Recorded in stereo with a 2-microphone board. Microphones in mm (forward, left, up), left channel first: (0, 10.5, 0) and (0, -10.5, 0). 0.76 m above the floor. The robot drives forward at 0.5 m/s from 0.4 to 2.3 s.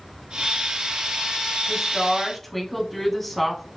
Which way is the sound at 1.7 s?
10° left (ahead or behind).